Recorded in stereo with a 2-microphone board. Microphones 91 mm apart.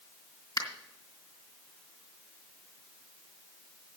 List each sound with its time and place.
0.6 s a finger snap: 45° left (ahead or behind), 2.5 m